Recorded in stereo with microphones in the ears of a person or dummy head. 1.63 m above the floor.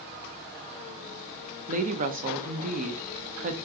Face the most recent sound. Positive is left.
turn(degrees=-40)  # may be behind; listen again after turning